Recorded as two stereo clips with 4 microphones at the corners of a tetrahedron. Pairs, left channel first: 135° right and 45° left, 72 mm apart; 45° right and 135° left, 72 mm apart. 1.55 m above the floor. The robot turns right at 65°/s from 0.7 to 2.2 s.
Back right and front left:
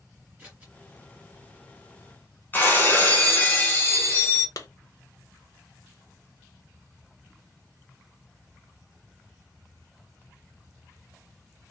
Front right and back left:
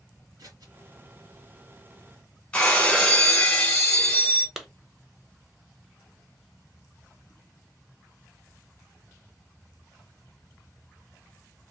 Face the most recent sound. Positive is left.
turn(degrees=-140)